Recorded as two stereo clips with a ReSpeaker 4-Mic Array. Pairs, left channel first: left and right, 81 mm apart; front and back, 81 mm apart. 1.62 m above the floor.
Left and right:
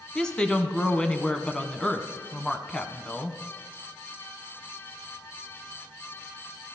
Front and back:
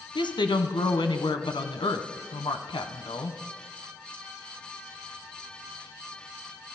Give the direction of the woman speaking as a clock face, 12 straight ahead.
12 o'clock.